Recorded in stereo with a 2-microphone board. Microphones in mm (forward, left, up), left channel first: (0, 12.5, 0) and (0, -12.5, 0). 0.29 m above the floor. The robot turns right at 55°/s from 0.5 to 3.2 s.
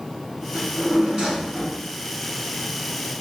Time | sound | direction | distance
0.5 | a drawer | 90° right | 1.6 m